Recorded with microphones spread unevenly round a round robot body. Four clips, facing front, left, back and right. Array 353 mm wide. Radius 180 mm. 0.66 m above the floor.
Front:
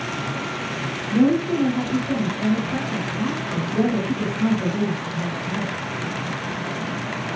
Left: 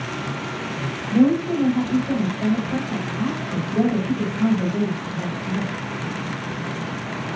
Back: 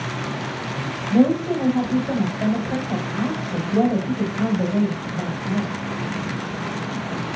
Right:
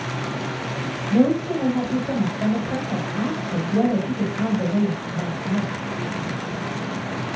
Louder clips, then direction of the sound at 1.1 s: Left 1 dB, back 1 dB; 130° right.